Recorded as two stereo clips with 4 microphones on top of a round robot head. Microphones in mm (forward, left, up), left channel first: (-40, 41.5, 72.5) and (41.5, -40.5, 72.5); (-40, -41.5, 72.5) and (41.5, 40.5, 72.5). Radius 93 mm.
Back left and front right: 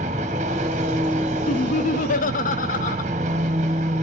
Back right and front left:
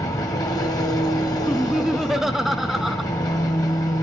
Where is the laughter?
135° left, 0.6 m.